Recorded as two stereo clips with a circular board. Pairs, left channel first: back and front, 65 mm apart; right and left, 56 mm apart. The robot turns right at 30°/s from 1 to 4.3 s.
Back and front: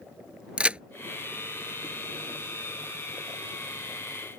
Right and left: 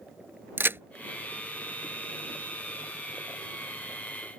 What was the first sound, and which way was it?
A crack, 65° left.